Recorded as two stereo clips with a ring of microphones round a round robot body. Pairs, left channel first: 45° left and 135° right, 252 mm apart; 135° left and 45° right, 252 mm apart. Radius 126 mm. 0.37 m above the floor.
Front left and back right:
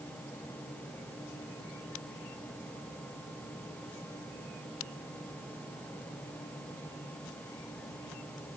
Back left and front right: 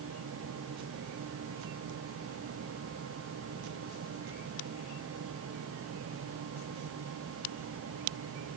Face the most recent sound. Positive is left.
No sound to turn to.